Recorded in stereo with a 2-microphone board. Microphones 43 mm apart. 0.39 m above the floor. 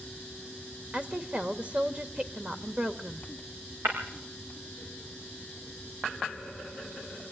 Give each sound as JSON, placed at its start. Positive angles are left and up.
{"t": 0.9, "sound": "a woman speaking", "side_deg": -25, "distance_m": 1.6}
{"t": 3.9, "sound": "breaking glass", "side_deg": -65, "distance_m": 7.5}